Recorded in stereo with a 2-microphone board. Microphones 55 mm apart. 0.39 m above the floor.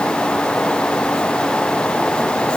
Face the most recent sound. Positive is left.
No sound to turn to.